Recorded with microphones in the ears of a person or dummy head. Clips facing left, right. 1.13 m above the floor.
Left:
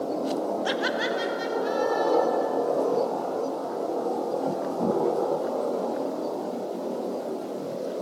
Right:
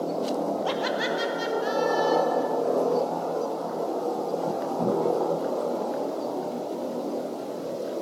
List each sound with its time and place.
0.7 s laughter: 15° left (ahead or behind), 0.7 m; by 2.5 s 15° right (ahead or behind), 2.5 m